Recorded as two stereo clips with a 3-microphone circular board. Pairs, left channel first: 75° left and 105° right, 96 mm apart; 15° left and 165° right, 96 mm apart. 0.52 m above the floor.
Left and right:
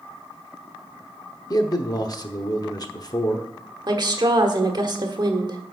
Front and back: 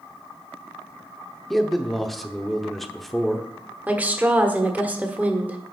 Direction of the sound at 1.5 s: 100° left.